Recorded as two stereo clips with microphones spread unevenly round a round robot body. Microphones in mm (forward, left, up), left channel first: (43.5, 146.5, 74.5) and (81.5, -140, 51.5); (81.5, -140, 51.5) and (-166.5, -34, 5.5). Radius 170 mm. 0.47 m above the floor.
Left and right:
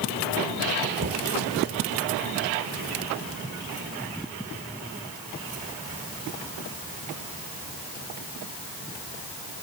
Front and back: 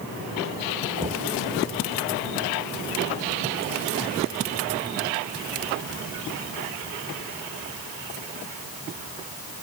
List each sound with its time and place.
1.0 s knocking: 140° right